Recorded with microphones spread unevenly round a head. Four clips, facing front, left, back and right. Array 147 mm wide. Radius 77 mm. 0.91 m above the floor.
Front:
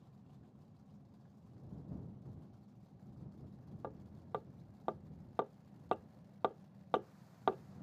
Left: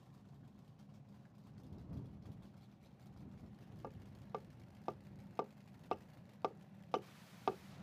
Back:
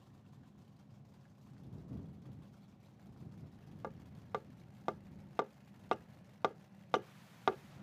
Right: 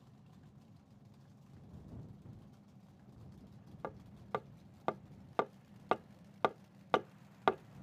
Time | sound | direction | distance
3.8 | hammering | 90° right | ?